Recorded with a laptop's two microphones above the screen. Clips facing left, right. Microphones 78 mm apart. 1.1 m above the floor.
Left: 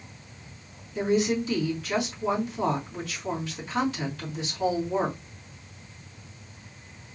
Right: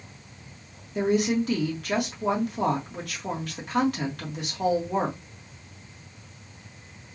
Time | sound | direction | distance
0.9 | a woman speaking | 60° right (ahead or behind) | 1.8 m